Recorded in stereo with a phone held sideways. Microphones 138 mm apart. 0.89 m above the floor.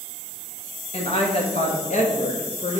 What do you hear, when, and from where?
0.9 s a woman speaking: 45° left (ahead or behind), 1.4 m; by 2.8 s 60° left (ahead or behind), 1.7 m